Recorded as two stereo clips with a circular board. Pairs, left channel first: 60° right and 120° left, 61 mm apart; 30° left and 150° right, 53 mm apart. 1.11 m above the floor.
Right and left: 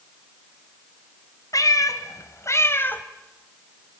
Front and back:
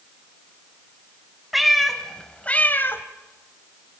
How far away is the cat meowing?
About 1.9 m.